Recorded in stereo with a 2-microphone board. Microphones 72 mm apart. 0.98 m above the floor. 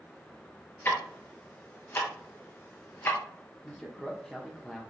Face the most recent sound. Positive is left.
turn(degrees=10)  # may be behind; listen again after turning